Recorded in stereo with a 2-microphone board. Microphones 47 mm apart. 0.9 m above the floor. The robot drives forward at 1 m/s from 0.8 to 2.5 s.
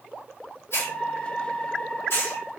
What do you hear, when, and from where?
0.7 s a hiss: 60° left (ahead or behind), 1.3 m; by 2.4 s 45° left (ahead or behind), 1.6 m